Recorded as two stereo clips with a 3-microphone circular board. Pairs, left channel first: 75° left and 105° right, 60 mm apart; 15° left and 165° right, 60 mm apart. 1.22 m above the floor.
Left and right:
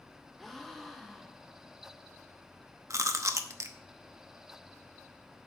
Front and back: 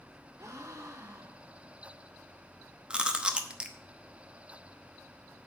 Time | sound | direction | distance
0.4 | a gasp | 160° left | 1.1 m
2.9 | chewing | 90° right | 0.9 m